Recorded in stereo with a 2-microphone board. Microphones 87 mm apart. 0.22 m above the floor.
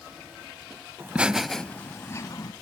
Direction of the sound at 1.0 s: 25° right (ahead or behind).